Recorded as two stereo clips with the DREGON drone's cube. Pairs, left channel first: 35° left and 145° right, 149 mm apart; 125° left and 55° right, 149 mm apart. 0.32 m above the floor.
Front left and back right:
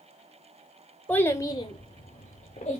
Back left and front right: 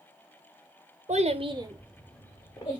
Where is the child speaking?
45° right, 0.7 m; by 2.8 s 70° left, 0.9 m.